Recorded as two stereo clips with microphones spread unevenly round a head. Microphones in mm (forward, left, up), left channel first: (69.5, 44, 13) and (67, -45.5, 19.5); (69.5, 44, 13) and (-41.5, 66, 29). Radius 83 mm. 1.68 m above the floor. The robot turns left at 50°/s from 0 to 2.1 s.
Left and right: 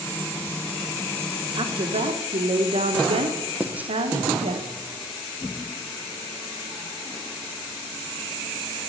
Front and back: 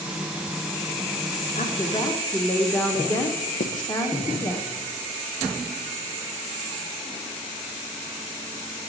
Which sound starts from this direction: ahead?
Writing, at 3.6 s.